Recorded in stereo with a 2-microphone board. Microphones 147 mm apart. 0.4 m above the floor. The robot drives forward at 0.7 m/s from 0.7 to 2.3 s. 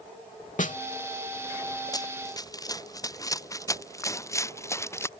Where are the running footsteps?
25° left (ahead or behind); by 5.1 s 20° left (ahead or behind).